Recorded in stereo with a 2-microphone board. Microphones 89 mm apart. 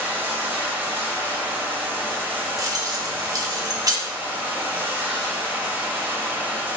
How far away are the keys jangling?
About 1.7 m.